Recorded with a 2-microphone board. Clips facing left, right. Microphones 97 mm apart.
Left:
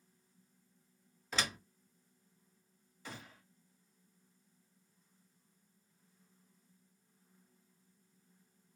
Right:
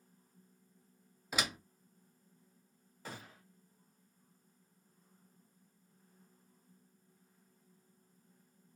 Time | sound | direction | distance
1.3 | a door slam | 10° right (ahead or behind) | 0.7 m
3.0 | a gunshot | 45° right (ahead or behind) | 1.5 m